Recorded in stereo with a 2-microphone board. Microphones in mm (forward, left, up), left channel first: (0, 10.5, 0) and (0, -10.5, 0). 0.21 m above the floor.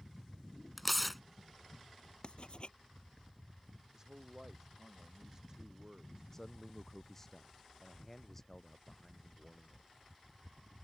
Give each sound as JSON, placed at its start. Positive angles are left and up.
{"t": 0.8, "sound": "tearing paper", "side_deg": 0}
{"t": 2.2, "sound": "writing", "side_deg": 50}
{"t": 3.9, "sound": "a man speaking", "side_deg": -25}
{"t": 6.3, "sound": "a man speaking", "side_deg": 20}